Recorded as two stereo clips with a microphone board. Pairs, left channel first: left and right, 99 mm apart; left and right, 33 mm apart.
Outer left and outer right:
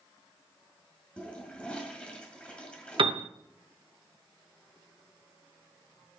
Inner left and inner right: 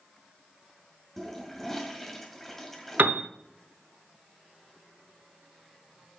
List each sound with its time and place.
1.2 s a toilet flushing: 10° left (ahead or behind), 1.8 m
3.0 s a piano: 65° right (ahead or behind), 0.6 m